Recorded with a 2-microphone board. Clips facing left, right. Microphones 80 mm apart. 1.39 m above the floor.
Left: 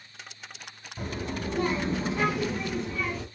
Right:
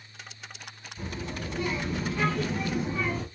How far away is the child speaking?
About 1.5 m.